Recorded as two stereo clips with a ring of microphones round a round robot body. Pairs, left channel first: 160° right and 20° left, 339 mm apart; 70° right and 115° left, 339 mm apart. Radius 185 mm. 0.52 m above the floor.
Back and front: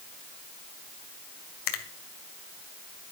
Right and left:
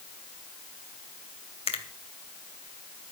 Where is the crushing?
I don't hear crushing.